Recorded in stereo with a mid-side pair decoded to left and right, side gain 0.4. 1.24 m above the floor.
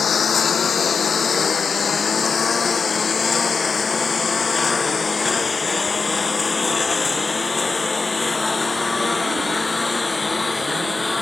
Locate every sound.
0.0 s a lawn mower: 55° left; by 11.2 s 25° left